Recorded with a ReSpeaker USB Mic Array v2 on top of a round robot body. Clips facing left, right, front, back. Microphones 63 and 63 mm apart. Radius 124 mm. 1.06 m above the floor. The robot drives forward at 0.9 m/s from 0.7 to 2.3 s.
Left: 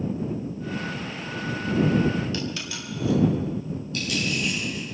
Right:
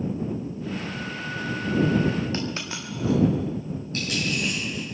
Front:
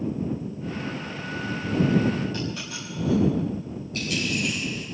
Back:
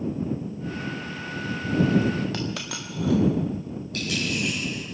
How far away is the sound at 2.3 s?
About 0.6 m.